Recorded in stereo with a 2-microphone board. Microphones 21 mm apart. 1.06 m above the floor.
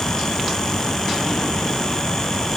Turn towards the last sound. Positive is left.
No sound to turn to.